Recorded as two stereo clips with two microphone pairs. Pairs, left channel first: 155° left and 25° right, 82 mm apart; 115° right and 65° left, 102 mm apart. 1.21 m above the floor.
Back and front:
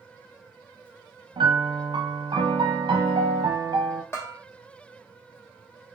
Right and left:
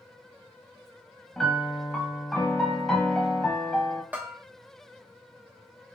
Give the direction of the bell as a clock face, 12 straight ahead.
8 o'clock.